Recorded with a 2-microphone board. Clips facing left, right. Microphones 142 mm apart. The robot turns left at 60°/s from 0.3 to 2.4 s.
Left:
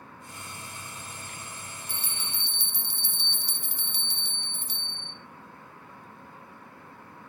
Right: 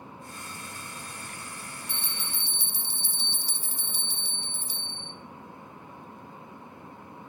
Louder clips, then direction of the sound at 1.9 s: Right 1 dB; 140° left.